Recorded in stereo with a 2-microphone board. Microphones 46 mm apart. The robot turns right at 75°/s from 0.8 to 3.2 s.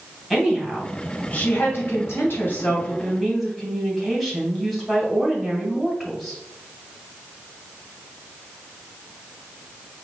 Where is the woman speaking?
5° right, 1.9 m; by 6.4 s 175° left, 1.9 m.